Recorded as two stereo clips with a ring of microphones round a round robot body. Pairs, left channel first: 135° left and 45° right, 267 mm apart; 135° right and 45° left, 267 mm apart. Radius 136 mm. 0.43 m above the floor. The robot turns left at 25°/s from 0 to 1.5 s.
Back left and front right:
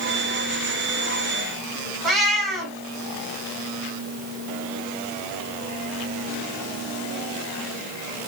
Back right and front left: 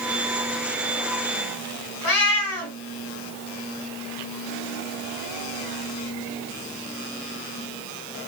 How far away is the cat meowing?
About 1.5 m.